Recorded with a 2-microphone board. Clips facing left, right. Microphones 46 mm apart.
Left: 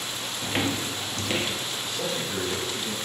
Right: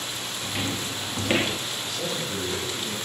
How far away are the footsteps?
About 0.7 m.